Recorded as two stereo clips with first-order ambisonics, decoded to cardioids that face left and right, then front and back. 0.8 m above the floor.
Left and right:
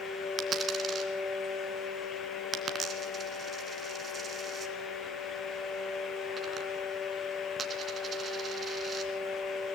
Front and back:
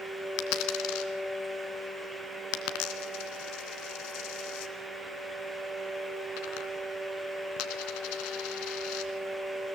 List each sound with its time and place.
0.4 s a dropped coin: 20° right, 2.5 m